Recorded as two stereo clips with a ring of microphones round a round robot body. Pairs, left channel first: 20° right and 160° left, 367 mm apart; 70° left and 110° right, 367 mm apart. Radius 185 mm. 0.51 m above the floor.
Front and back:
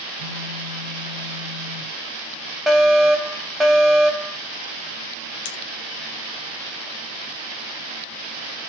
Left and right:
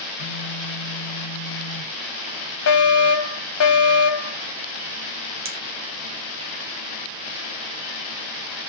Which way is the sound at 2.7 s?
70° left.